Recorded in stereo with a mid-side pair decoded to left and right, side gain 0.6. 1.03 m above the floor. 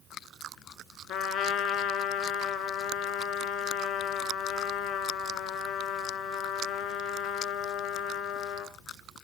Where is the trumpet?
60° left, 1.3 m.